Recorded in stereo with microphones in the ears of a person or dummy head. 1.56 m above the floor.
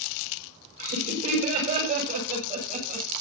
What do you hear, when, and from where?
0.8 s laughter: 45° right (ahead or behind), 7.5 m; by 3.1 s 40° right (ahead or behind), 6.5 m